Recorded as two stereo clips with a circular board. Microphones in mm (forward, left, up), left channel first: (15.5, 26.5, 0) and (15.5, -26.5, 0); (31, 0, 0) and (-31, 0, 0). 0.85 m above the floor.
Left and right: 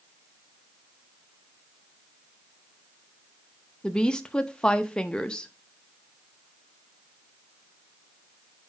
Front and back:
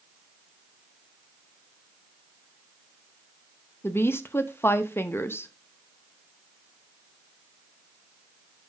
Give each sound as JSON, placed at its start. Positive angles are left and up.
{"t": 3.8, "sound": "a woman speaking", "azimuth_deg": 20, "distance_m": 0.7}